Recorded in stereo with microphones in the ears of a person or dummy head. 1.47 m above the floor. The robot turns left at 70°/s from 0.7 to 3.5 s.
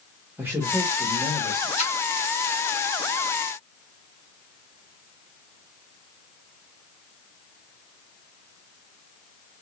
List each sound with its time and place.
0.4 s a man speaking: 165° right, 1.6 m; by 1.7 s 125° left, 1.6 m
1.8 s a splash: 35° left (ahead or behind), 1.5 m; by 1.9 s 45° left (ahead or behind), 1.5 m